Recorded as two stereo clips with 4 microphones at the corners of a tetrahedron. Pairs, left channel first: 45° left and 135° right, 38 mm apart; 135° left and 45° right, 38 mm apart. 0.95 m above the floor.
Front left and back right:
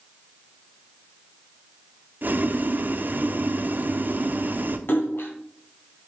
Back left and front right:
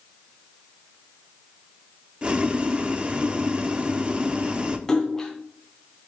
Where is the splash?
60° left, 2 m.